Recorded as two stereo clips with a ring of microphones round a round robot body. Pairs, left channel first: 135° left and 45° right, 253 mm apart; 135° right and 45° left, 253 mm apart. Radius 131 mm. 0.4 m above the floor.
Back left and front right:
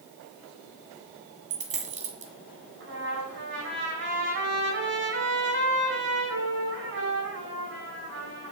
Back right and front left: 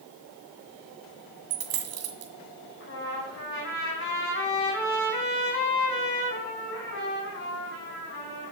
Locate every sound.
1.5 s a dropped coin: 20° left, 1.9 m
2.8 s a trumpet: 90° right, 5 m